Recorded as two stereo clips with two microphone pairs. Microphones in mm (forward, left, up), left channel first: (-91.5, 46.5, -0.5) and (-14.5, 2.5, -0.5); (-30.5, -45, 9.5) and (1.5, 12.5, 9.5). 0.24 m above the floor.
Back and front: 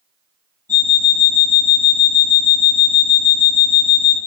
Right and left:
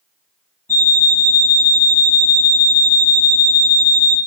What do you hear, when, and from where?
0.7 s an alarm clock: 65° right, 0.8 m